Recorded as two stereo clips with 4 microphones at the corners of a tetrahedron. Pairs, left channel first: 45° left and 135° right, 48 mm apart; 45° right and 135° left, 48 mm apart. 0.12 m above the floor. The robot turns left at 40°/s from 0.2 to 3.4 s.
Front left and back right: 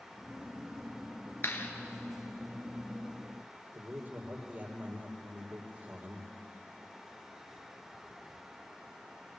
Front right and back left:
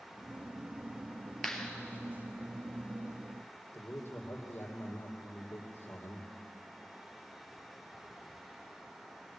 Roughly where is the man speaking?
Right.